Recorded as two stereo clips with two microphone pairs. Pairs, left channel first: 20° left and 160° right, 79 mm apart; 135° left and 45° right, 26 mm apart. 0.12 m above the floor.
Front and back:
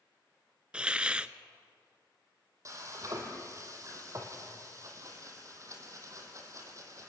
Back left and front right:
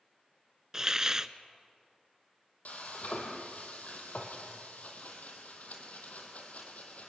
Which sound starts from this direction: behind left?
Frying, at 2.6 s.